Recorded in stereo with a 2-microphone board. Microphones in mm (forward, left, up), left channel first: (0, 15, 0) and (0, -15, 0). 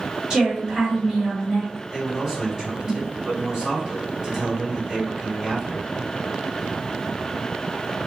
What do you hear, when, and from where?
0.3 s a woman speaking: 25° right (ahead or behind), 1.6 m
1.9 s a man speaking: 10° right (ahead or behind), 1.9 m